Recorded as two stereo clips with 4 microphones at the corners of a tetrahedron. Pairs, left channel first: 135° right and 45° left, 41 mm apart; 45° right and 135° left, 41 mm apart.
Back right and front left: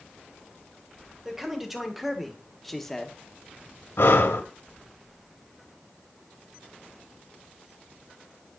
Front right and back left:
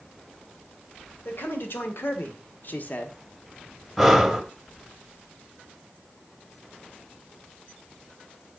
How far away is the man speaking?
About 2 m.